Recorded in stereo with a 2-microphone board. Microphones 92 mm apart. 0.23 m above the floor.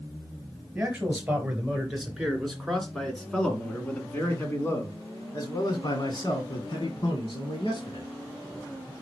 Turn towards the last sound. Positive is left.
turn(degrees=60)  # may be behind; listen again after turning